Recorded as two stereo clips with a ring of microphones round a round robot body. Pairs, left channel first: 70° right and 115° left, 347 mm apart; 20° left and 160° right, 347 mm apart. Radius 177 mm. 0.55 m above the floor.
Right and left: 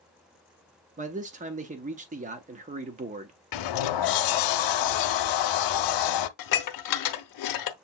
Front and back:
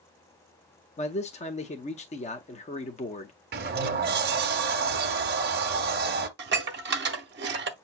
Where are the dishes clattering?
100° right, 0.7 m.